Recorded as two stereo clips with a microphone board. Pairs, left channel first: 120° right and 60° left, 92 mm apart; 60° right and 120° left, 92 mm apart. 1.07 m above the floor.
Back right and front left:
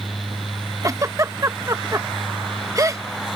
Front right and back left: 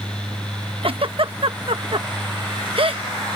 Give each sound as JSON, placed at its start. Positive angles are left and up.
{"t": 0.8, "sound": "a giggle", "azimuth_deg": 115}